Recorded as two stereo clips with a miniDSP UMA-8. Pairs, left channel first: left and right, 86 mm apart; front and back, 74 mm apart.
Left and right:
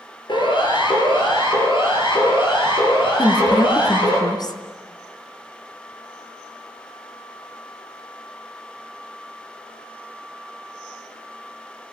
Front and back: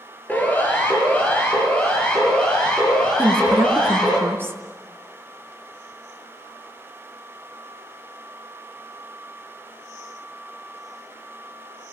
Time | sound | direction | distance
0.3 | a siren | 65° left | 6 m
3.2 | a woman speaking | 125° left | 3.5 m